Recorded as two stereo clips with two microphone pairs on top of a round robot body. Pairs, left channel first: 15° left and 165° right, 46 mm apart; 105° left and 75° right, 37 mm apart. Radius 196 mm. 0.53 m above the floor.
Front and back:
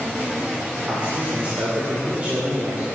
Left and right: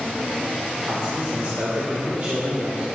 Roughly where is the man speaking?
Right.